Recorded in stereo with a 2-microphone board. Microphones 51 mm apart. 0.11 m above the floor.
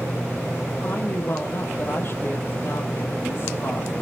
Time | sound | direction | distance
0.8 | a woman speaking | 45° left (ahead or behind) | 3.5 m